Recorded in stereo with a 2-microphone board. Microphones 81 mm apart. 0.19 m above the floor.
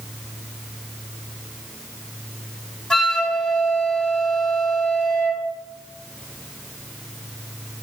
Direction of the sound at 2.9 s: 10° left (ahead or behind).